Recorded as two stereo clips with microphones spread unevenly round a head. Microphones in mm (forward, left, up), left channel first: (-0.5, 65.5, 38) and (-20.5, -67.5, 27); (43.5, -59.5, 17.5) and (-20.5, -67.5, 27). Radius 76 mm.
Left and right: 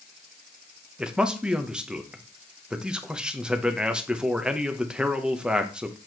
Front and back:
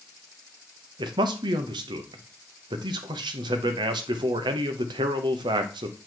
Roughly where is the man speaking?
Behind.